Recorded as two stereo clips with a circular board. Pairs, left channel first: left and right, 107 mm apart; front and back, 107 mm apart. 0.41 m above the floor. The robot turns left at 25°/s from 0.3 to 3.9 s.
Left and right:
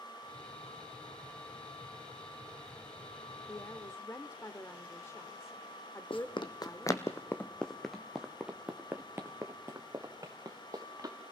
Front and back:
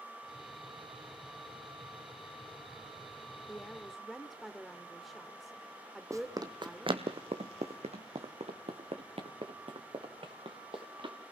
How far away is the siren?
No siren in this recording.